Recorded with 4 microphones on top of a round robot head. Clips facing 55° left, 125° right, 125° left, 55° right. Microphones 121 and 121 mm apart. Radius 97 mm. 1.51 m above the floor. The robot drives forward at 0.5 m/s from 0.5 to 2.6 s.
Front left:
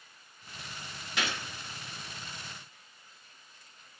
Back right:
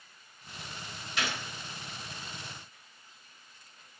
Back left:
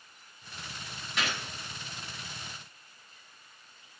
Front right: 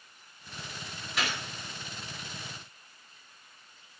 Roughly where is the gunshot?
Ahead left.